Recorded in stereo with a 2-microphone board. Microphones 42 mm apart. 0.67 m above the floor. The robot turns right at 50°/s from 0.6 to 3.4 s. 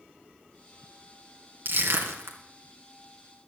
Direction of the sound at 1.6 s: 65° right (ahead or behind).